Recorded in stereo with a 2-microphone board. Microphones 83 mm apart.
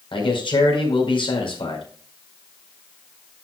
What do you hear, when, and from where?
0.1 s a man speaking: 80° left, 4.5 m